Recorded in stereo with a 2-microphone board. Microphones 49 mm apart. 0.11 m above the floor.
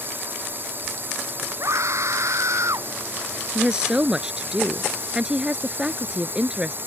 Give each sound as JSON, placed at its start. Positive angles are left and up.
{"t": 0.0, "sound": "a drone", "side_deg": -45}
{"t": 1.6, "sound": "a scream", "side_deg": -70}
{"t": 3.5, "sound": "a woman speaking", "side_deg": -15}